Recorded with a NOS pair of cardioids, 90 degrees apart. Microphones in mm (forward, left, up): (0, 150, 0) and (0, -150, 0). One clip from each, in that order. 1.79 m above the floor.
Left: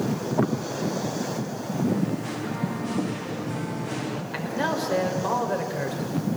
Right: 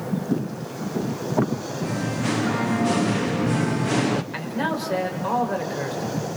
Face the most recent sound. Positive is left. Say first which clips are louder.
# even
turn(degrees=-5)